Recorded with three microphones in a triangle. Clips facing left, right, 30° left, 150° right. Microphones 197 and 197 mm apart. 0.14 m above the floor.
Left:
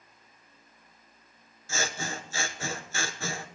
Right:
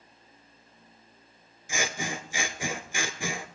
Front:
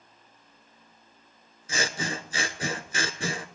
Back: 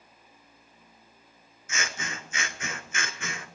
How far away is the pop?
I don't hear a pop.